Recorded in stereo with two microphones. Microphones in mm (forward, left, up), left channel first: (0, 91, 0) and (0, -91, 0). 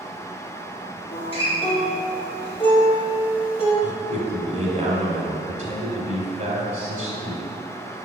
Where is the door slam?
I don't hear a door slam.